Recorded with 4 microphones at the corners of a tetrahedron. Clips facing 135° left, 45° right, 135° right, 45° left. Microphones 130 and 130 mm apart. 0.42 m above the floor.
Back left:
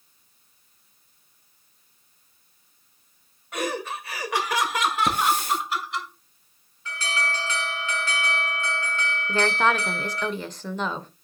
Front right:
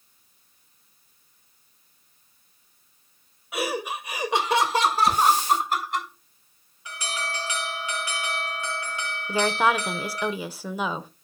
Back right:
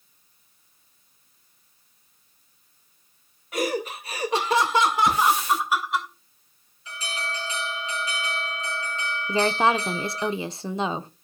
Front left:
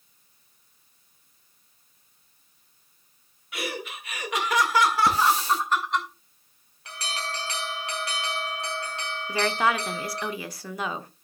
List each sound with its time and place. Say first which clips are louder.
3.5 s laughter: front right 1 dB, back right 8 dB; 125° right, 1.8 m; by 6.1 s 50° right, 2 m
5.1 s a hiss: front right 3 dB, back right 1 dB; 100° left, 3.5 m
6.8 s an alarm: back left 3 dB, even; 30° left, 6 m
9.3 s a woman speaking: front right 1 dB, back right 3 dB; 115° right, 0.8 m